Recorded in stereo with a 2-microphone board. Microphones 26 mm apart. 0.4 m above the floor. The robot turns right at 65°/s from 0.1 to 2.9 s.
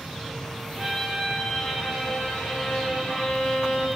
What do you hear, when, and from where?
0.8 s a violin: 20° right, 7.5 m; by 3.9 s 120° left, 7.5 m